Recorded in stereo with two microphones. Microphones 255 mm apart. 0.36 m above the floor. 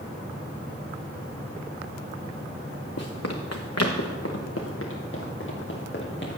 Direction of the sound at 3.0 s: 70° left (ahead or behind).